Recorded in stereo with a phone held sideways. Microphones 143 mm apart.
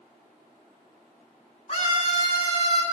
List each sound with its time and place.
1.7 s a scream: 45° left (ahead or behind), 8.5 m; by 2.8 s 40° left (ahead or behind), 7.5 m